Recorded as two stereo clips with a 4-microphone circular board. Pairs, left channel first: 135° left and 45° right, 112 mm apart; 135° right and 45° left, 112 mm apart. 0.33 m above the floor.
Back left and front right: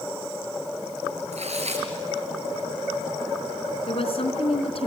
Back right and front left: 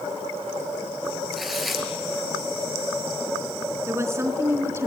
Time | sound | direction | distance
1.3 | tearing paper | 45° right | 4 m
3.9 | a woman speaking | 110° left | 3.5 m